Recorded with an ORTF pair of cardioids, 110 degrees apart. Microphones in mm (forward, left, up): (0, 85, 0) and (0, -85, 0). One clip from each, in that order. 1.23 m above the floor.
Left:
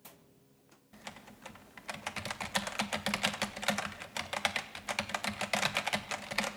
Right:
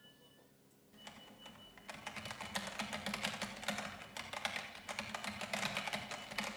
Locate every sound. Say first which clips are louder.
0.9 s typing on a keyboard: left 6 dB; 45° left, 1.7 m